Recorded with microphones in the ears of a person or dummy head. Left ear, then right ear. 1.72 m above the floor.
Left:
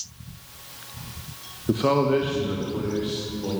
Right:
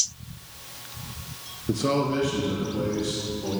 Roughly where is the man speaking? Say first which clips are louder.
Left 4 dB; left.